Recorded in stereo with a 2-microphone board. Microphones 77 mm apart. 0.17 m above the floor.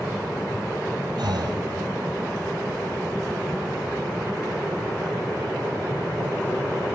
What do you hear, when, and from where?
1.2 s breathing: 75° right (ahead or behind), 1.3 m